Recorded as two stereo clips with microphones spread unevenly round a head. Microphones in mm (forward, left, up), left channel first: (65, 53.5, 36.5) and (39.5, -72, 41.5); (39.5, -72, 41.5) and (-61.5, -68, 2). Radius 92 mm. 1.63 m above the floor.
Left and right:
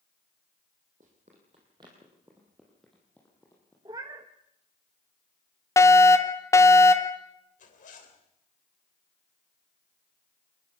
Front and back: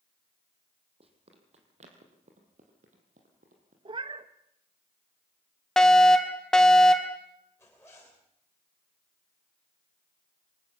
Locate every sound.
1.0 s running footsteps: 150° right, 4 m; by 3.8 s 150° left, 4.5 m
3.9 s a cat meowing: 145° right, 1.0 m
5.8 s a fire alarm: 115° left, 1.1 m
7.6 s a zipper: 65° left, 3 m